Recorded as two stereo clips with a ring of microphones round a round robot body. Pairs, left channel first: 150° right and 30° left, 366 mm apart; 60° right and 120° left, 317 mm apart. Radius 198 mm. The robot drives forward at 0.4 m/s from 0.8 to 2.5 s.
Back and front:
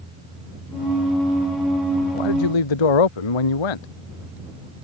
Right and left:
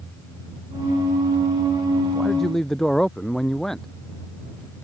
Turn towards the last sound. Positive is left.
turn(degrees=-150)